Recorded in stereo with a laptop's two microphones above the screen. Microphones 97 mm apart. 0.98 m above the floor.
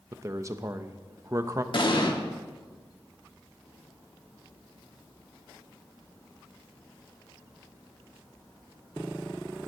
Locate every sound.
0.1 s a man speaking: 35° right (ahead or behind), 0.6 m
1.7 s an explosion: 60° left (ahead or behind), 1.4 m